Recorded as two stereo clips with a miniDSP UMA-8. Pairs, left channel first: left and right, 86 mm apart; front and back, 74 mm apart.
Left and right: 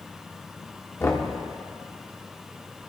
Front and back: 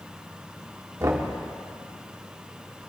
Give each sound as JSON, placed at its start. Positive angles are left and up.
{"t": 1.0, "sound": "knocking", "azimuth_deg": 145, "distance_m": 1.6}